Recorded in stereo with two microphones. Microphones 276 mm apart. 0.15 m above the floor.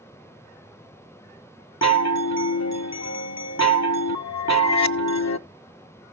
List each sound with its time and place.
1.8 s a chime: 70° left (ahead or behind), 0.5 m